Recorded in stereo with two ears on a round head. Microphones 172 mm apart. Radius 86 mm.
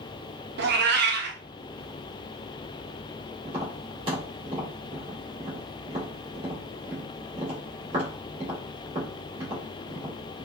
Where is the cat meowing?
60° right (ahead or behind), 0.5 m.